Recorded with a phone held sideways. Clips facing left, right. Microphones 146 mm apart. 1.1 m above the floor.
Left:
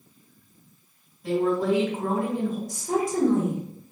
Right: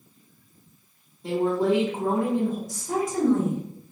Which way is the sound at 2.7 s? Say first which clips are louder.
Left 2 dB; 55° left (ahead or behind).